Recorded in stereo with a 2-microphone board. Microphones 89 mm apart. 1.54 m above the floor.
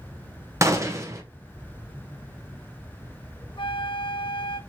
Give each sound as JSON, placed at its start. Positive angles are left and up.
{"t": 0.6, "sound": "a gunshot", "side_deg": -35, "distance_m": 0.8}
{"t": 3.6, "sound": "a flute", "side_deg": 70, "distance_m": 0.5}